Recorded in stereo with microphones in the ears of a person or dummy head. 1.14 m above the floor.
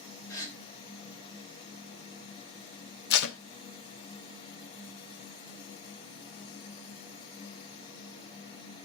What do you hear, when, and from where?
0.3 s a gasp: 20° left (ahead or behind), 1.3 m
3.1 s tape being pulled: 60° left (ahead or behind), 0.5 m